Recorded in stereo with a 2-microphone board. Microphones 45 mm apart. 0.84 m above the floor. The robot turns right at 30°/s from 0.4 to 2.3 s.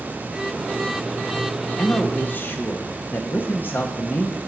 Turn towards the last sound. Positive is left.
turn(degrees=45)  # may be behind; listen again after turning